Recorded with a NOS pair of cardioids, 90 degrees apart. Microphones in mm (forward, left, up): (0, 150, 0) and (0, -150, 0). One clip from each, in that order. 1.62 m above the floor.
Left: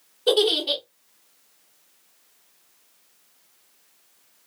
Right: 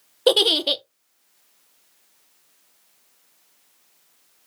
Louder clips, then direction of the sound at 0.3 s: Right 3 dB; 70° right.